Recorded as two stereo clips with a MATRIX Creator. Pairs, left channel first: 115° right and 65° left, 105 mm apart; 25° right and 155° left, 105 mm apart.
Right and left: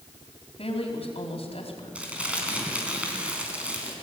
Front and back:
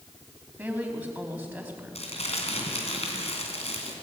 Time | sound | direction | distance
0.6 | a woman speaking | 125° right | 4 m
1.9 | crumpling | 10° right | 3.5 m